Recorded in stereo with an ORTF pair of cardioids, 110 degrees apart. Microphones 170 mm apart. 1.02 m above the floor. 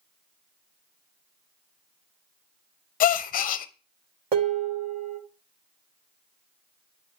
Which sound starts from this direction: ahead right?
Dishes clattering, at 4.3 s.